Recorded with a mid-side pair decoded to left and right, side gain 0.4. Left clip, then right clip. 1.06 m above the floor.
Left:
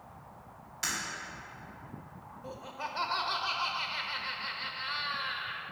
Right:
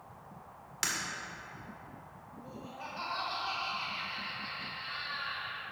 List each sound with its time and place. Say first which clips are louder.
0.8 s breaking glass: even; 65° right, 2 m
2.4 s laughter: left 5 dB; 60° left, 0.7 m